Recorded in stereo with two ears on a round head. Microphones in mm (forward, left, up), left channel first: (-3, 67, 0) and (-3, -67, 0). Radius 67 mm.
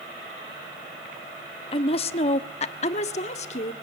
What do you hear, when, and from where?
1.7 s a woman speaking: 35° left (ahead or behind), 0.7 m; by 3.7 s 45° left (ahead or behind), 1.8 m